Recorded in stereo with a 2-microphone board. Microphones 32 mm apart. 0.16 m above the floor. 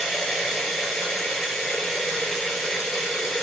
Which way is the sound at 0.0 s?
10° left (ahead or behind).